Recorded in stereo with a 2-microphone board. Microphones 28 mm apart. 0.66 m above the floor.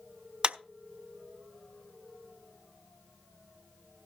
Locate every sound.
0.4 s a clap: 35° right (ahead or behind), 0.6 m